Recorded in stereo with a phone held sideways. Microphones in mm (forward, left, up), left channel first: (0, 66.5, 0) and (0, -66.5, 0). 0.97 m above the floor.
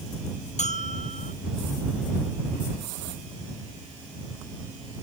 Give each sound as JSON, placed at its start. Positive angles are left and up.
{"t": 0.6, "sound": "a bell", "side_deg": 60}